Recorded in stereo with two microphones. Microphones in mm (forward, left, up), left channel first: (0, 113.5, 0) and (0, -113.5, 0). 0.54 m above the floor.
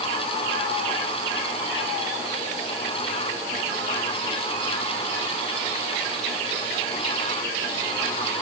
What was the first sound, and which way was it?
Only background noise.